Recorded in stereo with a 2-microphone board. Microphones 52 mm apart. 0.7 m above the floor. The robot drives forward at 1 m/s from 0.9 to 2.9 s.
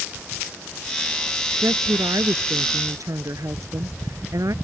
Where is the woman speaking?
65° right (ahead or behind); by 4.5 s 70° right (ahead or behind).